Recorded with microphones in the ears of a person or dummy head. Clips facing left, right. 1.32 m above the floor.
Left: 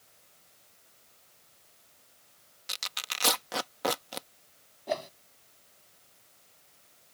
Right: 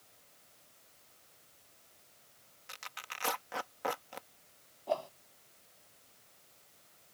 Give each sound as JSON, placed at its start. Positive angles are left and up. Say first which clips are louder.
{"t": 2.7, "sound": "tearing paper", "louder": "left 4 dB", "side_deg": 50}
{"t": 4.9, "sound": "a whoosh", "louder": "left 2 dB", "side_deg": 20}